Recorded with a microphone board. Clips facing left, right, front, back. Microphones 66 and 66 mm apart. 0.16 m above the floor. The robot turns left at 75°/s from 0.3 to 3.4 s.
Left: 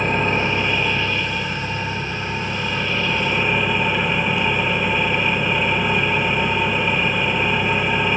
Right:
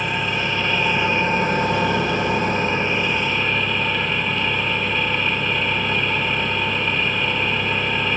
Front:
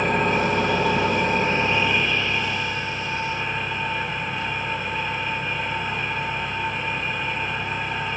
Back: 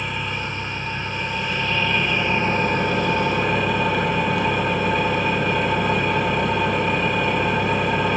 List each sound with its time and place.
0.0 s an engine running: 40° left, 1.2 m; by 8.2 s 165° left, 1.2 m